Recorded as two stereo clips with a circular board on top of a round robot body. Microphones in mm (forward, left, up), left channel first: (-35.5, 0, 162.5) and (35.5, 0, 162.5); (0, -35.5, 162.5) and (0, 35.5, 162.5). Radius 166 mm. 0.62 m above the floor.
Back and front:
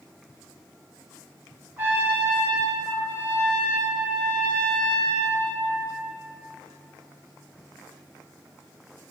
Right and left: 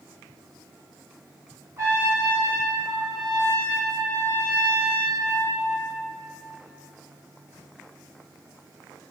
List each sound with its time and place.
1.8 s a trumpet: 60° left, 1.1 m